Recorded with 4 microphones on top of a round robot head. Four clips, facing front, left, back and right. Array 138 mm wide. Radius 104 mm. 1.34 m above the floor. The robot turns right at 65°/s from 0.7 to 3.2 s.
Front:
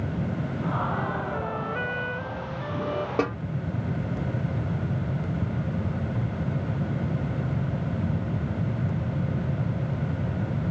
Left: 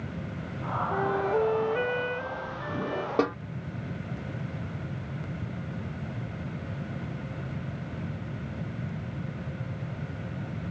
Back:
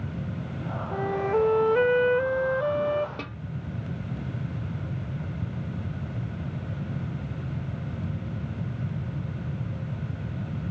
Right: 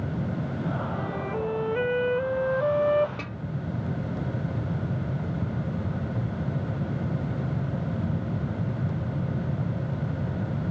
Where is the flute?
120° left; by 3.1 s 95° right.